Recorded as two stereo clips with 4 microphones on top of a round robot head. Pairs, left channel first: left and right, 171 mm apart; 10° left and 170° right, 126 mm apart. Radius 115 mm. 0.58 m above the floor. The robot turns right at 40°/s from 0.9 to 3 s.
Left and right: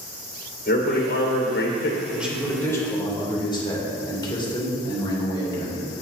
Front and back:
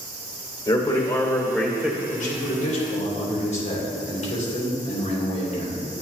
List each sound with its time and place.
0.7 s a man speaking: 60° left, 2 m; by 2.0 s 105° left, 2 m
2.1 s a man speaking: 10° right, 3 m; by 5.8 s 25° left, 3 m